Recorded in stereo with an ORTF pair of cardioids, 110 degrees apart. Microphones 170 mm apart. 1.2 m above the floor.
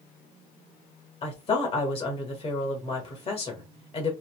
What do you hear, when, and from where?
1.2 s a woman speaking: 35° left, 1.8 m